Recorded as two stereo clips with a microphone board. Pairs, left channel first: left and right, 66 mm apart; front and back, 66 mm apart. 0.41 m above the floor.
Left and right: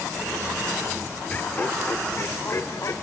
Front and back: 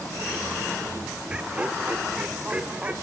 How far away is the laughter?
About 1.2 m.